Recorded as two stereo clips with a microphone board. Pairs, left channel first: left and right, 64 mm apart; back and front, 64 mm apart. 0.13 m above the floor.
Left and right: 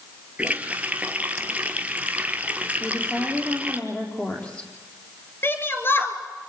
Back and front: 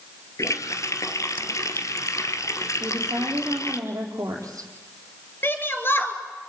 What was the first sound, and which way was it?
A running tap, 155° right.